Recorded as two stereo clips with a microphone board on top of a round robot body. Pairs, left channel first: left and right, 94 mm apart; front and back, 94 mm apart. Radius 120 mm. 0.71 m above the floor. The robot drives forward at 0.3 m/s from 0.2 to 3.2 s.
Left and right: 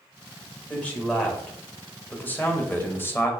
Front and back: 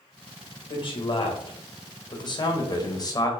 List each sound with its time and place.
0.7 s a man speaking: 15° left, 1.6 m; by 3.3 s 30° left, 1.0 m